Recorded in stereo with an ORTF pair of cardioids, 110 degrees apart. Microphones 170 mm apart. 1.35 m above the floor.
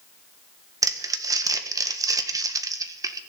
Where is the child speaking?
No child speaking in this recording.